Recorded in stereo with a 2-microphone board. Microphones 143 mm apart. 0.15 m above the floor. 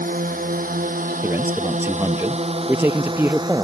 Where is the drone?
75° right (ahead or behind); by 3.6 s 25° right (ahead or behind).